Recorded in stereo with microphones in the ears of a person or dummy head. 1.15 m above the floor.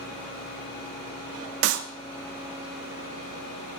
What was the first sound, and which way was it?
A clap, 75° right (ahead or behind).